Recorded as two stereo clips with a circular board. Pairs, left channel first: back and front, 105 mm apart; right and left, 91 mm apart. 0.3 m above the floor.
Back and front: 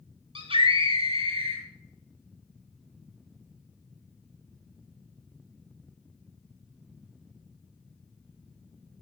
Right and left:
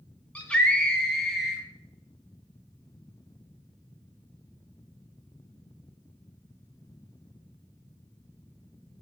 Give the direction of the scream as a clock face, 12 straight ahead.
1 o'clock.